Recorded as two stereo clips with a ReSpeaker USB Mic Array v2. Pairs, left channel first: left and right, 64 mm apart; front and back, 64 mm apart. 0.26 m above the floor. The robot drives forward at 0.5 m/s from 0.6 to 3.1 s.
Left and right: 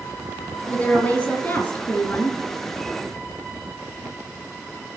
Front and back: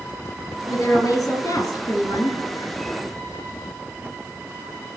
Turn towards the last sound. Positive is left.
turn(degrees=40)